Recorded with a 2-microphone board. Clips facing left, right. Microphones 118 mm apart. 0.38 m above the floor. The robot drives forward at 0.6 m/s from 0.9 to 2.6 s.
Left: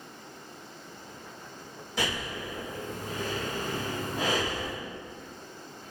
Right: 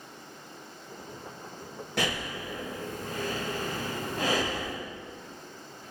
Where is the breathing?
65° right (ahead or behind), 1.7 m; by 4.8 s 55° right (ahead or behind), 1.9 m.